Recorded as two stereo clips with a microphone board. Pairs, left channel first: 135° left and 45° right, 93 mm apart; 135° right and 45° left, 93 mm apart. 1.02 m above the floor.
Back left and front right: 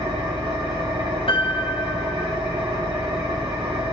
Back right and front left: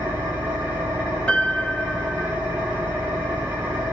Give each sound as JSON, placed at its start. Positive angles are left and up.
{"t": 0.0, "sound": "an engine running", "azimuth_deg": -25, "distance_m": 3.5}
{"t": 1.3, "sound": "a piano", "azimuth_deg": 145, "distance_m": 1.0}